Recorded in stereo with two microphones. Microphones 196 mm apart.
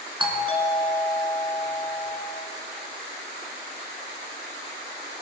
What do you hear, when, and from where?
0.2 s a doorbell: 25° right (ahead or behind), 2.5 m